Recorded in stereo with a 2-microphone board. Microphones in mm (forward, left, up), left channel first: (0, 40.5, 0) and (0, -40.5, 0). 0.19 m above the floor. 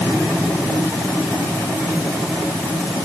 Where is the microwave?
No microwave in this recording.